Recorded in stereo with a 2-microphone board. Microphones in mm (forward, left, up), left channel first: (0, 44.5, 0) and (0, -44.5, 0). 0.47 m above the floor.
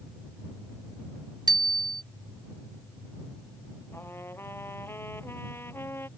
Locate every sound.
1.5 s a bicycle bell: 55° right (ahead or behind)
3.9 s a trumpet: 25° left (ahead or behind)